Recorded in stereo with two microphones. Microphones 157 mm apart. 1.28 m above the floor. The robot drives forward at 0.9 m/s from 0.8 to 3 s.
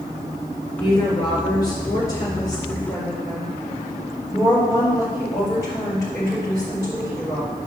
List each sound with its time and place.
0.8 s a woman speaking: 30° left (ahead or behind), 5 m; by 7.5 s 20° left (ahead or behind), 6.5 m